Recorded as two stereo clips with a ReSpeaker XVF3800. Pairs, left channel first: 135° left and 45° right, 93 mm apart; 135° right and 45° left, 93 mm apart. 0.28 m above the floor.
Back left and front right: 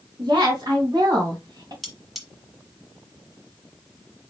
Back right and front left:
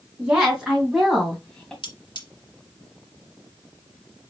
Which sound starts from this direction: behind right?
Cutlery clinking, at 1.8 s.